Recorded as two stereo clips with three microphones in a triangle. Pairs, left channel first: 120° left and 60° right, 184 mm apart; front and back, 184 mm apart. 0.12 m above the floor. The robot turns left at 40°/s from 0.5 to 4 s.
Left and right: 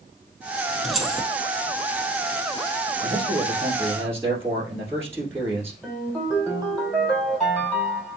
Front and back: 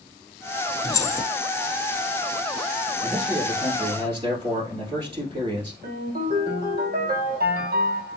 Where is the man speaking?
95° right, 1.8 m; by 5.7 s 135° right, 1.8 m.